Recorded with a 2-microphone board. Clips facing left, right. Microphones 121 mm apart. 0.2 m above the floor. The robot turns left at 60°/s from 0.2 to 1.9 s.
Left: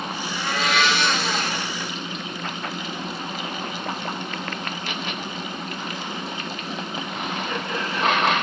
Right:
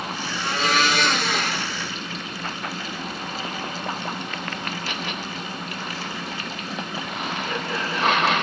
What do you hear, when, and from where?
0.3 s a blender: 15° right, 1.6 m; by 1.7 s 100° right, 1.6 m